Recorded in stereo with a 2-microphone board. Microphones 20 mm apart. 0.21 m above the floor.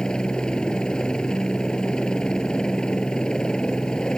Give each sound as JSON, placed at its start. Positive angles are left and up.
{"t": 0.0, "sound": "a helicopter", "side_deg": 45}